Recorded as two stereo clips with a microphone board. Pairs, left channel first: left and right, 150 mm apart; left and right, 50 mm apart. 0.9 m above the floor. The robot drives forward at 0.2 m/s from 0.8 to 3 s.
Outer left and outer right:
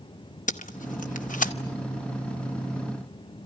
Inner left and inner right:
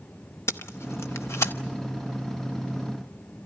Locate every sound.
0.5 s tape being pulled: 60° left (ahead or behind), 0.8 m